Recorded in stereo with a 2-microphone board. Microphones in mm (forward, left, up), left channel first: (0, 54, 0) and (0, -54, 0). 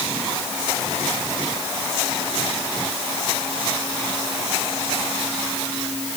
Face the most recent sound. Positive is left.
No sound to turn to.